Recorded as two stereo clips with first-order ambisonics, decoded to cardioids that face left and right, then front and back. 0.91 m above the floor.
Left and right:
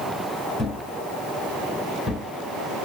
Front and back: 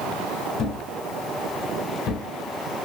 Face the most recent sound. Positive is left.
turn(degrees=10)